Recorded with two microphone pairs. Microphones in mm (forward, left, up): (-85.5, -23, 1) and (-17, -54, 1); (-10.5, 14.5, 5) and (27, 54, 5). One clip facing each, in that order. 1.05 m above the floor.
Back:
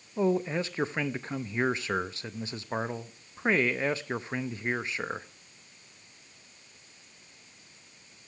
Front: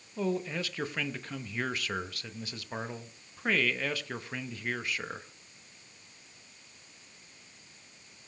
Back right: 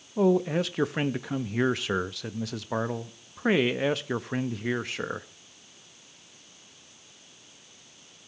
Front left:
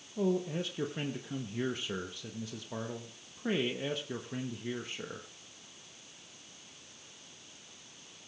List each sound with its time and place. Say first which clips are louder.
0.2 s a man speaking: back 5 dB, back right 9 dB; 140° right, 0.9 m